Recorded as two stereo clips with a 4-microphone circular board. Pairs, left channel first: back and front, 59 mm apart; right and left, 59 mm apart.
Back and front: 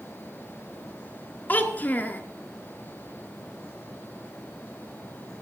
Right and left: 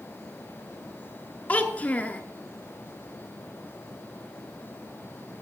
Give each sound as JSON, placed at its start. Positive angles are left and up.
{"t": 1.5, "sound": "a child speaking", "azimuth_deg": -140, "distance_m": 0.9}